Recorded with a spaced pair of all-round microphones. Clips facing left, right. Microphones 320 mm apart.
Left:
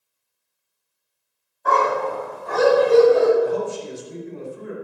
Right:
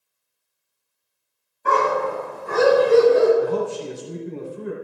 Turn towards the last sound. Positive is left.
turn(degrees=-70)  # may be behind; listen again after turning